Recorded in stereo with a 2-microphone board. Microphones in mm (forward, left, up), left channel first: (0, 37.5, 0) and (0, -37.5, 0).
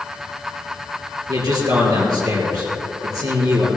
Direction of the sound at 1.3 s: 55° right (ahead or behind).